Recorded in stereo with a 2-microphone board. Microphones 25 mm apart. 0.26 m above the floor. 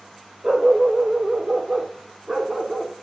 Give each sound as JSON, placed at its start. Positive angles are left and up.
{"t": 0.4, "sound": "a dog barking", "side_deg": -35, "distance_m": 2.5}